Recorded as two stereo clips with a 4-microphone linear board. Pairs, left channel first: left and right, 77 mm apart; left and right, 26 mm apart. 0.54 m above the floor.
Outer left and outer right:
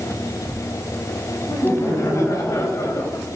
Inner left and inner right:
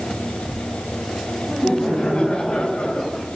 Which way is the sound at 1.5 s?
50° left (ahead or behind).